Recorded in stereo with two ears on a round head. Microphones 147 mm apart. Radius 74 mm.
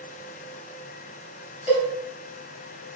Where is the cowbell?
35° left (ahead or behind), 4.5 m.